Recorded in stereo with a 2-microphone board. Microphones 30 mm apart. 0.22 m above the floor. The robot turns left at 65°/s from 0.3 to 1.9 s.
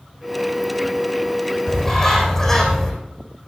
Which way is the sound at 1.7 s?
35° left (ahead or behind).